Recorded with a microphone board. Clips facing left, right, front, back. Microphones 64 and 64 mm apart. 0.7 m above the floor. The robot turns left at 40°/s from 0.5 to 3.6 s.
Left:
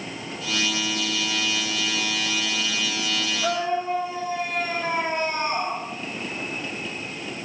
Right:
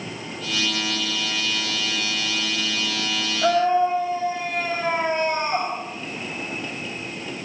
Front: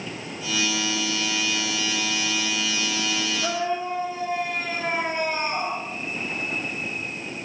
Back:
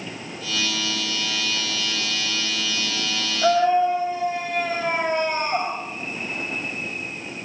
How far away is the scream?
About 4.5 m.